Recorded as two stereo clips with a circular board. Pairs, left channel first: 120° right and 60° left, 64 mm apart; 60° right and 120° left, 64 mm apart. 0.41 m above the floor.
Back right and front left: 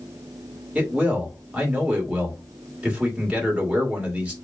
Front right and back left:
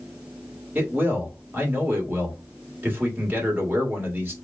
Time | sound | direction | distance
0.8 | a man speaking | 115° left | 1.6 m